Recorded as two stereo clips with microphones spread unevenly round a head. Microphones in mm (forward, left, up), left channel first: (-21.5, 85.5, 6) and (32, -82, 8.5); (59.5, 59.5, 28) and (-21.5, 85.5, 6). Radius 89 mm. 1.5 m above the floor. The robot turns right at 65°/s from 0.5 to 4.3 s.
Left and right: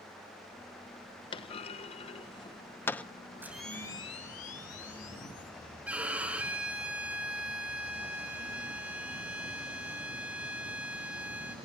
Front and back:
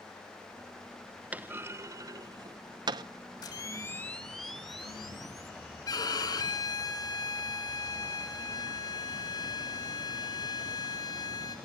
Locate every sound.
1.3 s a clunk: 75° left, 0.6 m; by 3.0 s 170° right, 0.6 m
3.4 s a camera shutter: 5° left, 3.5 m; by 5.5 s 65° left, 3.5 m
5.9 s a violin: 10° left, 4 m